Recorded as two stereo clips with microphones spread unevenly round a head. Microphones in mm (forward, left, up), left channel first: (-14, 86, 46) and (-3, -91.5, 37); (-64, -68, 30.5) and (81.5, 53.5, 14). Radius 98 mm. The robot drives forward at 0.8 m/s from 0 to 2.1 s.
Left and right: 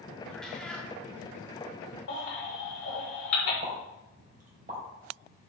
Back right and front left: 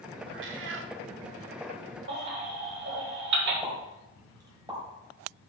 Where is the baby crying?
75° left, 3.5 m.